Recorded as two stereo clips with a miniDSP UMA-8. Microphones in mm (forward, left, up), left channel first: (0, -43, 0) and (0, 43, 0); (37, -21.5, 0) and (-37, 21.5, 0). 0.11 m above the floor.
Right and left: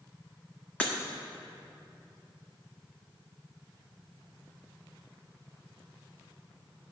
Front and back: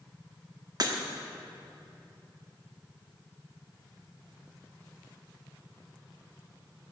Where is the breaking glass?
165° right, 1.0 m.